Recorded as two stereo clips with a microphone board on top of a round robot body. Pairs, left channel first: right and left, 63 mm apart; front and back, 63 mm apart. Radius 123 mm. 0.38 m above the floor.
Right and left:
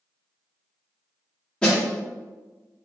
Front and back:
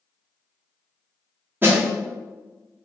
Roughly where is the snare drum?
Behind.